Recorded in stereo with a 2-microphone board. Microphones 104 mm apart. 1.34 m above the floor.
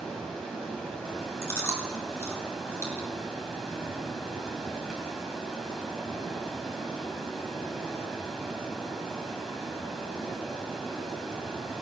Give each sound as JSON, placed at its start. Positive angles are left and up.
{"t": 0.0, "sound": "running water", "side_deg": 5, "distance_m": 5.0}
{"t": 1.4, "sound": "chewing", "side_deg": 25, "distance_m": 3.5}